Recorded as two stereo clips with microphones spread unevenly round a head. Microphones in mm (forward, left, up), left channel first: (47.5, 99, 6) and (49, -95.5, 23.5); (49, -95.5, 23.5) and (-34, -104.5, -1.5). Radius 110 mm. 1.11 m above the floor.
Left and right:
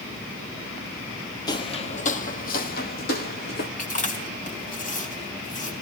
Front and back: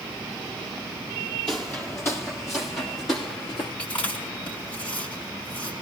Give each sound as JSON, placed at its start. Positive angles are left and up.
{"t": 1.5, "sound": "footsteps", "azimuth_deg": 30, "distance_m": 1.2}
{"t": 3.8, "sound": "chewing", "azimuth_deg": 45, "distance_m": 3.5}